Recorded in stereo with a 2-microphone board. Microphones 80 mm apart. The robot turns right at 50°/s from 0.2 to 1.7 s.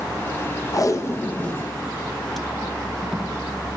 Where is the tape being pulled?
50° left (ahead or behind), 0.9 m; by 3.3 s centre (ahead or behind), 0.9 m.